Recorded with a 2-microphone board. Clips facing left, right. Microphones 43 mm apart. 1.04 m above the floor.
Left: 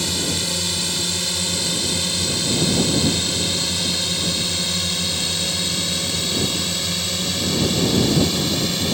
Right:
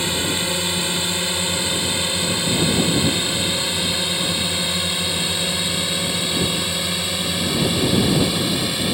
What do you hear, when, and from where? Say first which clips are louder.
0.0 s a drone: right 2 dB; 25° right (ahead or behind); by 8.9 s 10° right (ahead or behind)